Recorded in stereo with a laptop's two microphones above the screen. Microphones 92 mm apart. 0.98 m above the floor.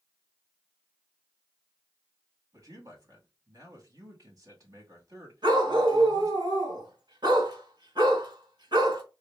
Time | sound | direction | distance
2.5 | a man speaking | 40° right (ahead or behind) | 2.5 m
5.4 | a dog barking | 50° right (ahead or behind) | 1.8 m